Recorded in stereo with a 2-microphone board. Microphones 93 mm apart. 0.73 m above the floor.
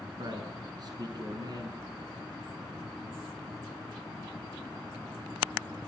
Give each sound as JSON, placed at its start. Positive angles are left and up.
{"t": 0.2, "sound": "a man speaking", "side_deg": -45, "distance_m": 7.0}